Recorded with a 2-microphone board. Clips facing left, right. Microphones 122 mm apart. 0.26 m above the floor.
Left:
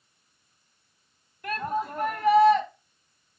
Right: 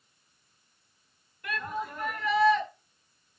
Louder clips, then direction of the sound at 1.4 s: Left 5 dB; 45° left (ahead or behind).